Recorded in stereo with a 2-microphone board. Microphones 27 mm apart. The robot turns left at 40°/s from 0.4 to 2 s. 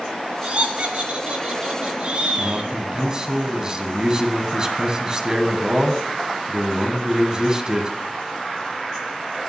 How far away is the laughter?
About 2 m.